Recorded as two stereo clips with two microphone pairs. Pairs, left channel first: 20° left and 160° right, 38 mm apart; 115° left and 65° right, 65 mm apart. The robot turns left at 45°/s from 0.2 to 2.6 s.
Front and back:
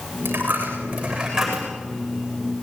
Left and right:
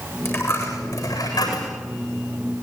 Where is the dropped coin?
170° left, 8 m; by 1.7 s 105° left, 8 m.